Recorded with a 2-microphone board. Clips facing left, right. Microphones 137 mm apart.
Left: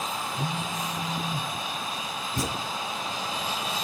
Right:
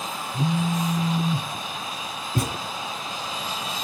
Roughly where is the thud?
Right.